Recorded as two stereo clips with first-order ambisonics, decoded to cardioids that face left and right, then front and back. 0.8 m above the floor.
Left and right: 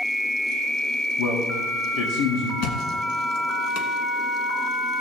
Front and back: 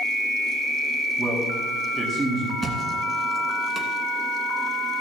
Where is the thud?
110° left, 1.8 m.